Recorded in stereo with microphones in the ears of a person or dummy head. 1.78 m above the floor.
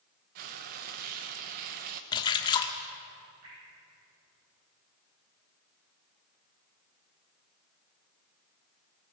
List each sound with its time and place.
0.3 s frying: 45° right (ahead or behind), 1.1 m
2.1 s a splash: 30° left (ahead or behind), 1.5 m
3.4 s dripping: 50° right (ahead or behind), 10 m